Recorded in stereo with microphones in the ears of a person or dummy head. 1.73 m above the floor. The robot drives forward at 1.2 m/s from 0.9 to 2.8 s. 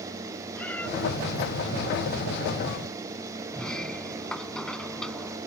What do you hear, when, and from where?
0.6 s a cat meowing: 10° left (ahead or behind)
3.5 s a sliding door: 5° left (ahead or behind)